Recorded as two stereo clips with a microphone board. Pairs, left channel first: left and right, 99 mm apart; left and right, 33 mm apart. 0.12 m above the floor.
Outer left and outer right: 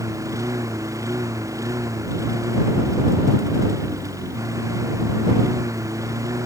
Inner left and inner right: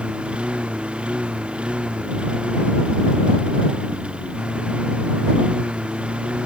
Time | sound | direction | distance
0.0 | a lawn mower | 30° right (ahead or behind) | ?